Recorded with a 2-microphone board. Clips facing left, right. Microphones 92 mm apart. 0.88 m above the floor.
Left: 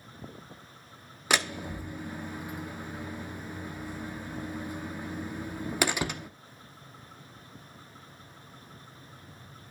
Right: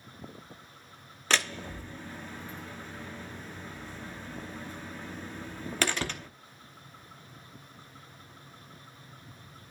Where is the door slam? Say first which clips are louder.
Left 1 dB; 15° left (ahead or behind), 0.9 m.